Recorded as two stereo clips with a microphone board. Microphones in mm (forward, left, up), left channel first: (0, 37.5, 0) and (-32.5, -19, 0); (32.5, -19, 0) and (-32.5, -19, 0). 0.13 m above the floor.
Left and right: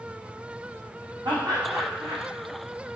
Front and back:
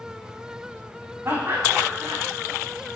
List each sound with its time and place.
1.2 s laughter: 125° right, 5.5 m